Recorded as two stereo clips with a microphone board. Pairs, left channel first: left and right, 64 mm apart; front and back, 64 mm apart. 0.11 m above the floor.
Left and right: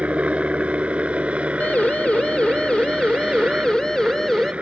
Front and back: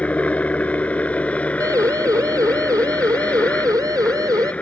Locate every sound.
0.0 s a helicopter: 45° right
1.6 s a siren: 155° left; by 4.5 s 170° left